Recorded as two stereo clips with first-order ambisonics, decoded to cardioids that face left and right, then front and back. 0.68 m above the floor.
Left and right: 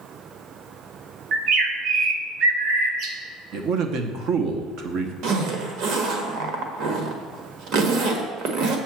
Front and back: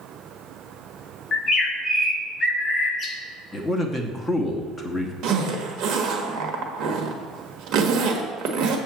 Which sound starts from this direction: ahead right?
A bird, at 1.3 s.